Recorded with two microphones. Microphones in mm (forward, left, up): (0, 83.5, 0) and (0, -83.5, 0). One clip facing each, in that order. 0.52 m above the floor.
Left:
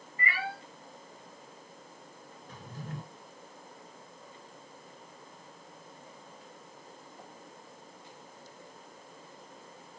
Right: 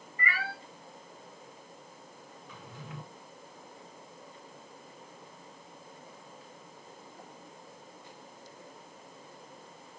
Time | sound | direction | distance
0.2 | a cat meowing | 25° left (ahead or behind) | 3.5 m
2.5 | a drawer | 40° left (ahead or behind) | 1.2 m